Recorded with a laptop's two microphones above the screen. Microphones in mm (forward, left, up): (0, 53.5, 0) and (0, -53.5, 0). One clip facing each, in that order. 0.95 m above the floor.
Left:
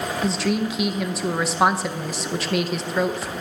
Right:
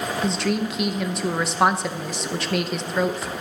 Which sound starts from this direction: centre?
A woman speaking, at 0.2 s.